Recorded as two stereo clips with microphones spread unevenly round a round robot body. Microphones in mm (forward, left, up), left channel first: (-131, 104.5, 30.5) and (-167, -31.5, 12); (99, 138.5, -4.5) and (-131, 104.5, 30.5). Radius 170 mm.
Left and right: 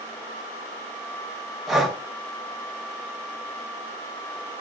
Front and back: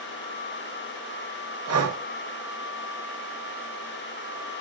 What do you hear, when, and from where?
1.7 s breathing: 170° left, 1.1 m